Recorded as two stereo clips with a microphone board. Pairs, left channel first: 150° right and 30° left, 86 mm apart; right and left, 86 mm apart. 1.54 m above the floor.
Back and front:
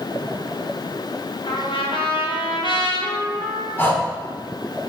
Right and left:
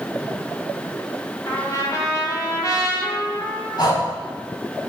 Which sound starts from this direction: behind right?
A trumpet, at 1.5 s.